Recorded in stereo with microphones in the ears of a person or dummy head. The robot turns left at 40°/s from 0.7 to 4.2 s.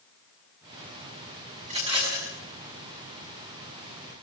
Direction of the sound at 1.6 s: 40° right (ahead or behind).